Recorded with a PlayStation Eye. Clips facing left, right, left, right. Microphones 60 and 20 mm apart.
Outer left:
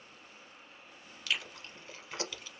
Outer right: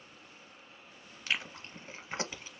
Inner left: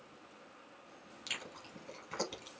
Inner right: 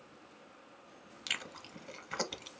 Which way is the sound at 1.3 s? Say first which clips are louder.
Outer right 1 dB, inner right 4 dB; 30° right (ahead or behind).